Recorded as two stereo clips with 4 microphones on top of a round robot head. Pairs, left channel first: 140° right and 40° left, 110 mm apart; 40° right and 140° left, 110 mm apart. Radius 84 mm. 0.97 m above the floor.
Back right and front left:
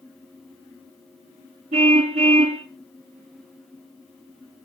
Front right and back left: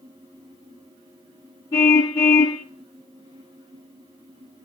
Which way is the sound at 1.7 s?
20° left.